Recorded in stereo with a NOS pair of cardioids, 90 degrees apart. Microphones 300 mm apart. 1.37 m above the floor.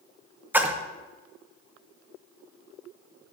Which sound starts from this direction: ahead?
A splash, at 0.5 s.